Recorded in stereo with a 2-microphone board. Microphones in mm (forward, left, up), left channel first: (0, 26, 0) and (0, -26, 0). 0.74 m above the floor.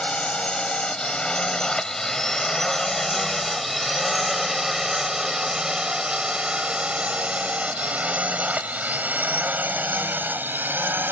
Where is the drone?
20° left (ahead or behind); by 11.1 s 40° right (ahead or behind).